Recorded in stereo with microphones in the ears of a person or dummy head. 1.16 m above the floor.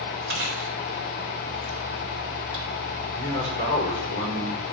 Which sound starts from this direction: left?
A man speaking, at 3.1 s.